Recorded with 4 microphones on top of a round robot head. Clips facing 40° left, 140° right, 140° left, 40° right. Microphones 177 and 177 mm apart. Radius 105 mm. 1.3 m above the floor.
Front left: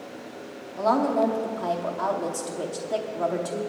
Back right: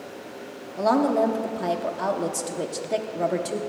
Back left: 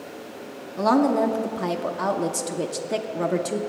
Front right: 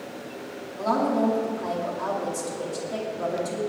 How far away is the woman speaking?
About 0.9 m.